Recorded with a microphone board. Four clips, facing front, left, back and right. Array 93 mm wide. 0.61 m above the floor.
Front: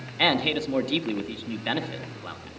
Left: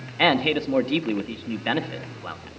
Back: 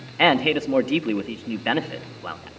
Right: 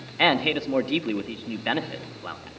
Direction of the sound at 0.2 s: 175° left.